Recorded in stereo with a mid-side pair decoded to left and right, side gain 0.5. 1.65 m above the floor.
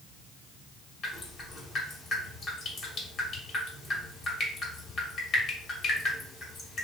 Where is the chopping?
I don't hear chopping.